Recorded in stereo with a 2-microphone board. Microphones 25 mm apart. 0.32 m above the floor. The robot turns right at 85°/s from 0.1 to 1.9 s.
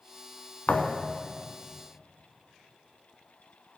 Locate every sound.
0.7 s a thud: 60° left, 0.8 m; by 1.2 s 110° left, 0.8 m